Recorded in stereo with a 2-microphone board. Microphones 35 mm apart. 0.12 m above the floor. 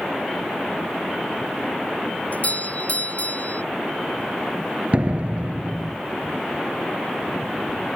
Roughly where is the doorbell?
Left.